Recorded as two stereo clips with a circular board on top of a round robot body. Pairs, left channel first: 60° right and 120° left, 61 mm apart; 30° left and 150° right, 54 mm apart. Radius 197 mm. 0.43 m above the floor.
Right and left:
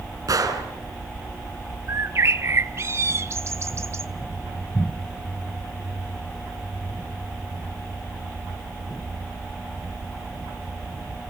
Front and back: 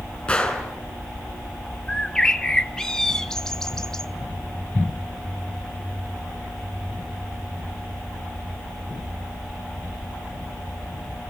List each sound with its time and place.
0.3 s a gunshot: 105° left, 4 m
1.9 s a bird: 105° left, 1.1 m